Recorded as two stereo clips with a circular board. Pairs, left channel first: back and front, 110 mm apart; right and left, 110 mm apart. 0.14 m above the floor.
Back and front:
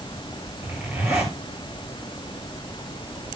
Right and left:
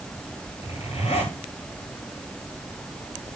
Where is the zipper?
70° right, 9.5 m.